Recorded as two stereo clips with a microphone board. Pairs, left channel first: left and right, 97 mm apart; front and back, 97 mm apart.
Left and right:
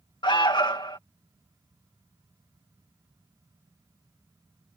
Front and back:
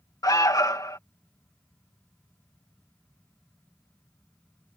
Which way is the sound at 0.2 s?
50° left.